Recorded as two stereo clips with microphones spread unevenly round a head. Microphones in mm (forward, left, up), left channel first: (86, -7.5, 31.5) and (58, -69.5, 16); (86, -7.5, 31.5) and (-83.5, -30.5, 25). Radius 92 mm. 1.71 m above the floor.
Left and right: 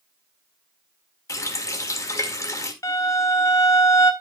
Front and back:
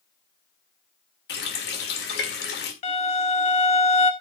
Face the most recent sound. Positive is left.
turn(degrees=55)